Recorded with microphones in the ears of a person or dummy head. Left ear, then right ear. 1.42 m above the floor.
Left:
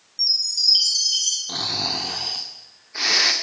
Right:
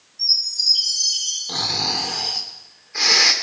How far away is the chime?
About 3 m.